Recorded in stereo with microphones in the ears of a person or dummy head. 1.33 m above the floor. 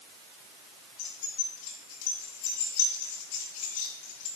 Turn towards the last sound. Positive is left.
turn(degrees=45)  # may be behind; listen again after turning